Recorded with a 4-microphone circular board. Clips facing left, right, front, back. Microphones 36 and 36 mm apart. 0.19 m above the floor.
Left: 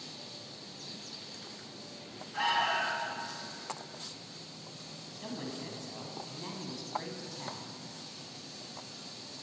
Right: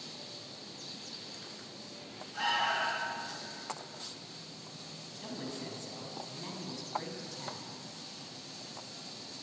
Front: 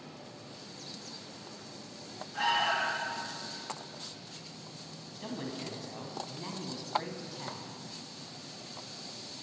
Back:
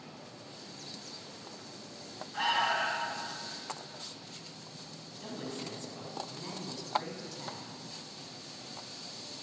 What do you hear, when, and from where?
2.3 s an alarm: 125° left, 2 m
5.2 s a woman speaking: 25° left, 1.0 m